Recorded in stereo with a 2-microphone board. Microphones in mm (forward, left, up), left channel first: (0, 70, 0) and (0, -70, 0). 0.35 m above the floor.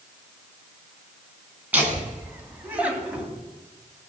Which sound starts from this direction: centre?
Laughter, at 1.7 s.